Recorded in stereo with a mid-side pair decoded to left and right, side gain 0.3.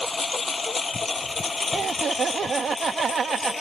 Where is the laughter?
65° right.